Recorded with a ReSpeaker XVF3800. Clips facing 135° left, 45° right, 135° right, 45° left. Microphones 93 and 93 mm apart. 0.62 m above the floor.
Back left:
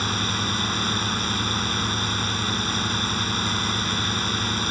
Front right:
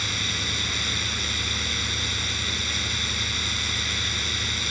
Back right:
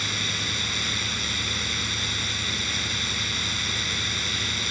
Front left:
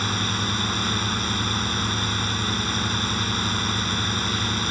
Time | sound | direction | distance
0.0 | a drone | 90° left | ?